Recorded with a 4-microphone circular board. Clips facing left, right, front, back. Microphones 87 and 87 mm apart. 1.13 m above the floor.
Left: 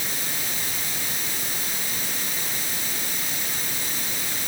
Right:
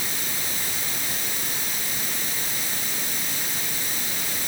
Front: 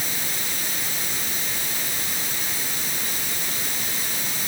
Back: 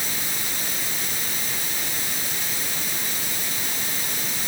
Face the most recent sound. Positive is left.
No sound to turn to.